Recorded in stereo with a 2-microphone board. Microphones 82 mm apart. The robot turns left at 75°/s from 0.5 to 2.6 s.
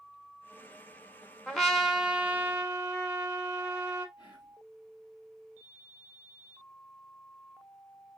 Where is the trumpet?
5° left (ahead or behind), 1.0 m; by 4.1 s 20° right (ahead or behind), 1.0 m.